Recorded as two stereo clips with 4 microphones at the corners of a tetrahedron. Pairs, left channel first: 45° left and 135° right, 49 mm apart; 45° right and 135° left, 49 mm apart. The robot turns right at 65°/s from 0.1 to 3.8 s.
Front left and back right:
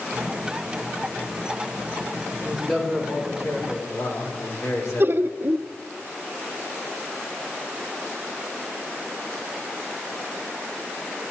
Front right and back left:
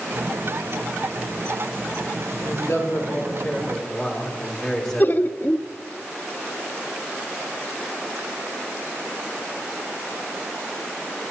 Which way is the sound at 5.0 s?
95° right.